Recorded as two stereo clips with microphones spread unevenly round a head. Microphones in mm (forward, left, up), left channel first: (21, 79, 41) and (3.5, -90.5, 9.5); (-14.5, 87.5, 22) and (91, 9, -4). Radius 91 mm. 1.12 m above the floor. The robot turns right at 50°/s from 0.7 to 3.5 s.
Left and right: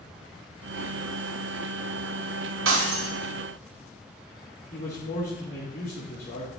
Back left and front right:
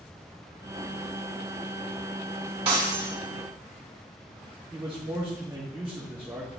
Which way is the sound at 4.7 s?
40° left.